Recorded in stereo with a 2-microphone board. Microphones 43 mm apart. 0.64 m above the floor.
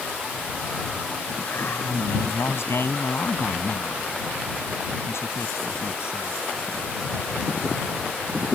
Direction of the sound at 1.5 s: 65° left (ahead or behind).